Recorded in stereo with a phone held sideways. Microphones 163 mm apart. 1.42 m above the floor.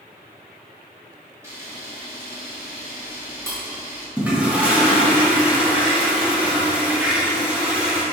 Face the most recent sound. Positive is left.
turn(degrees=-10)  # may be behind; listen again after turning